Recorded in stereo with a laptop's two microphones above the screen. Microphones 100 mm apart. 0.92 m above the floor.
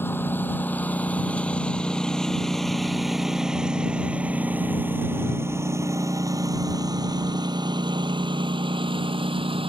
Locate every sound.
0.0 s a lawn mower: 20° left (ahead or behind); by 9.7 s 60° right (ahead or behind)